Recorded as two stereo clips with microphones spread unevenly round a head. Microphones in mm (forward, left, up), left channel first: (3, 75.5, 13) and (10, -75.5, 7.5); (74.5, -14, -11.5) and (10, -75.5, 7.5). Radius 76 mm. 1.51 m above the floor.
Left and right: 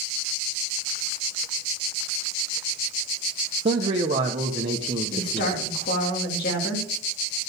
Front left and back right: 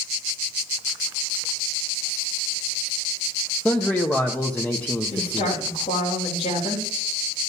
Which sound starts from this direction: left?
A woman speaking, at 5.1 s.